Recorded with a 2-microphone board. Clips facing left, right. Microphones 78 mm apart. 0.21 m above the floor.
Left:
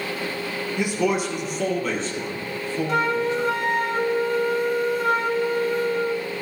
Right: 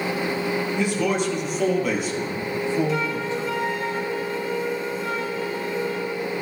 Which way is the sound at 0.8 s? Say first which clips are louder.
Left 3 dB; 15° left (ahead or behind).